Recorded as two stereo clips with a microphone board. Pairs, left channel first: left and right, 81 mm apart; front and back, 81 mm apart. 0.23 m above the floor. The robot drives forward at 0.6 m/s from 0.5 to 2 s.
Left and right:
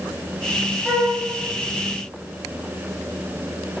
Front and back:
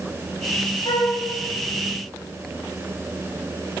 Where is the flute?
10° right, 5 m.